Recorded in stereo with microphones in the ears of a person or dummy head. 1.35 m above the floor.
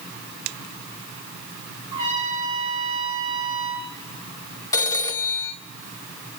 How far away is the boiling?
I don't hear boiling.